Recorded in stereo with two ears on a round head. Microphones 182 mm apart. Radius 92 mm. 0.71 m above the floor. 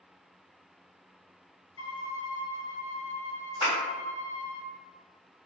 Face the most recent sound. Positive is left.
turn(degrees=30)  # may be behind; listen again after turning